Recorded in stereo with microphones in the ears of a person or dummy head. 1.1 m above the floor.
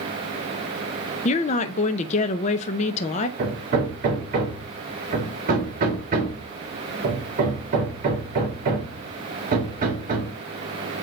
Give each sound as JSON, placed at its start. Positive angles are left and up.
{"t": 1.2, "sound": "a woman speaking", "side_deg": 35, "distance_m": 0.5}
{"t": 3.4, "sound": "hammering", "side_deg": -50, "distance_m": 1.8}